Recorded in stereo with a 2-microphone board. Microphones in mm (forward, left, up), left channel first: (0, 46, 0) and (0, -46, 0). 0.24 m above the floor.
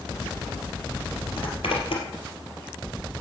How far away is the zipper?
About 3 m.